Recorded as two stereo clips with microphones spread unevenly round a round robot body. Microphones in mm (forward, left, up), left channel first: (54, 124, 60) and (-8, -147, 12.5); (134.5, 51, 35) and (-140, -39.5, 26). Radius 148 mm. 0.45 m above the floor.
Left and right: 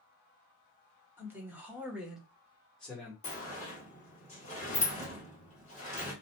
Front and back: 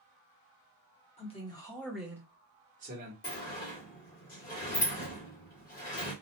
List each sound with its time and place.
1.2 s a man speaking: 40° right, 1.0 m; by 3.1 s 170° left, 1.0 m
3.2 s a sliding door: 20° left, 1.5 m